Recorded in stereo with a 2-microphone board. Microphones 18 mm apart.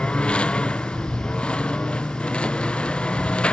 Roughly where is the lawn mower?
Left.